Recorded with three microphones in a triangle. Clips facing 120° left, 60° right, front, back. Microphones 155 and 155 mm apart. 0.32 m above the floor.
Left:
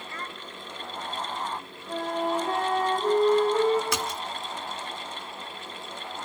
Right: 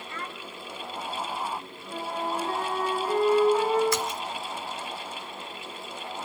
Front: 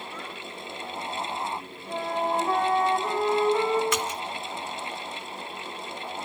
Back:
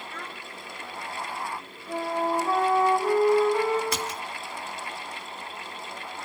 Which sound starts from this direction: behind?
A child speaking, at 0.1 s.